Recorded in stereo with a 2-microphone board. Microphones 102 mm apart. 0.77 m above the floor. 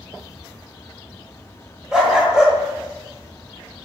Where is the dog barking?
5° right (ahead or behind), 1.4 m.